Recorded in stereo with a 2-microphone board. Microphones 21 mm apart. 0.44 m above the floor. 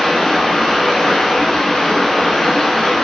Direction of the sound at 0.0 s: 50° left (ahead or behind).